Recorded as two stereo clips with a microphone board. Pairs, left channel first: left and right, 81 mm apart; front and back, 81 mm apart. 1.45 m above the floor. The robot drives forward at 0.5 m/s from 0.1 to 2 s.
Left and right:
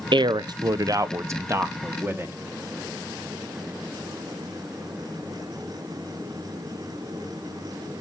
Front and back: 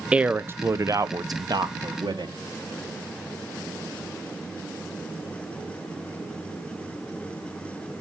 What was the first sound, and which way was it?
A man speaking, 100° right.